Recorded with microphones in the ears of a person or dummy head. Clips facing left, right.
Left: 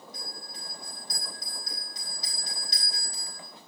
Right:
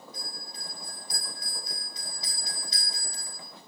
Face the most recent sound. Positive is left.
turn(degrees=40)  # may be behind; listen again after turning